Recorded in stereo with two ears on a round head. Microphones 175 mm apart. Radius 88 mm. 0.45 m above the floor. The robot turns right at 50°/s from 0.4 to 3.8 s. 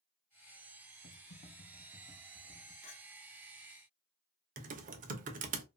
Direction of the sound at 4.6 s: 40° right (ahead or behind).